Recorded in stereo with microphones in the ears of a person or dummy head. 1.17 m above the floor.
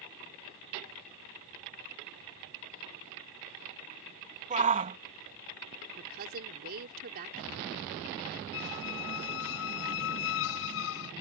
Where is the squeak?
65° left (ahead or behind).